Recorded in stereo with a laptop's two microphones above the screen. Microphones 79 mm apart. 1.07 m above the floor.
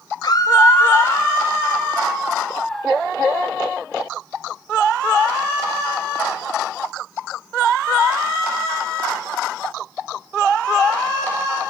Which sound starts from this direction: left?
A scream, at 0.2 s.